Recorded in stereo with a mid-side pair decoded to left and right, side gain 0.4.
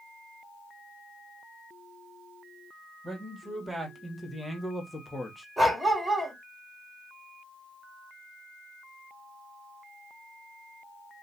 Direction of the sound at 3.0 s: 25° right.